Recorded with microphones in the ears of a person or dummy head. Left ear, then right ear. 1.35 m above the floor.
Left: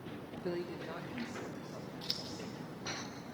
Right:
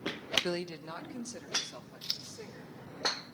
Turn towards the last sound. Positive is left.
turn(degrees=-20)  # may be behind; listen again after turning